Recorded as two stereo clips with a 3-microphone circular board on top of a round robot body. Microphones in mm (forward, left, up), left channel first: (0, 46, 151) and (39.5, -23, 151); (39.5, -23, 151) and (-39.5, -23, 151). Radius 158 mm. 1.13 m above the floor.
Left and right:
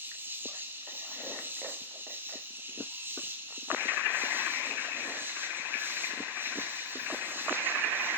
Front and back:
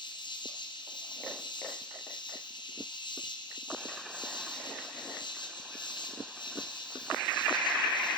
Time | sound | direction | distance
0.0 | an insect | straight ahead | 2 m